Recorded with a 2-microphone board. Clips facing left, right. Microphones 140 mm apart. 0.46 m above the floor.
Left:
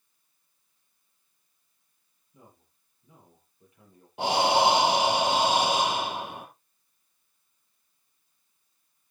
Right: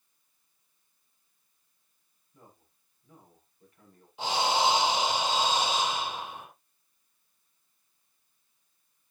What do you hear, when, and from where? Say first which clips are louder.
2.3 s a man speaking: left 1 dB; 15° left (ahead or behind), 9.5 m
4.2 s breathing: left 5 dB; 65° left (ahead or behind), 3 m